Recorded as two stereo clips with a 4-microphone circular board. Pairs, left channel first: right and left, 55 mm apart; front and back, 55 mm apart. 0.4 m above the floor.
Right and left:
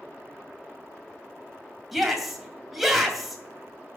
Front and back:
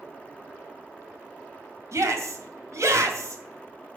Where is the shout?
Straight behind, 2 m.